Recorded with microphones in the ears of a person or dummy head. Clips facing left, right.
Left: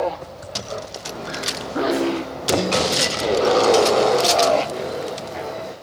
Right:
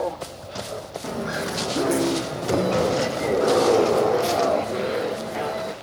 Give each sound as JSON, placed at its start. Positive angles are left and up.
{"t": 1.0, "sound": "footsteps", "side_deg": -40, "distance_m": 4.0}